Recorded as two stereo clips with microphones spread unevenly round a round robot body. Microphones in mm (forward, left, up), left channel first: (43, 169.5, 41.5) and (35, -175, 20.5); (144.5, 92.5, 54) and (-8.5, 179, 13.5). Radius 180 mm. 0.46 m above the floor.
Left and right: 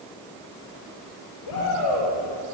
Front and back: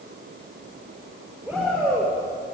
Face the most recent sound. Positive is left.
turn(degrees=65)